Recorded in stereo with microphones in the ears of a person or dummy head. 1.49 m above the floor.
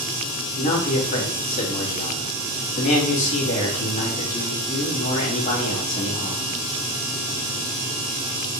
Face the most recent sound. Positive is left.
turn(degrees=40)  # may be behind; listen again after turning